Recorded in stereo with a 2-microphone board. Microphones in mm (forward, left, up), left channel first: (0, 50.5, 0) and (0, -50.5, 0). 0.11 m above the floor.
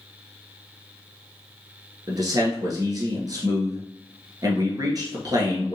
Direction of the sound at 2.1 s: 40° right (ahead or behind).